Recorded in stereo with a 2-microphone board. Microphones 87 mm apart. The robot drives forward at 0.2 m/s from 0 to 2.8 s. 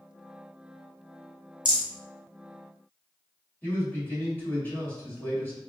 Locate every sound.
1.6 s a rattle: 55° right (ahead or behind), 2 m
3.6 s a man speaking: 25° left (ahead or behind), 2.5 m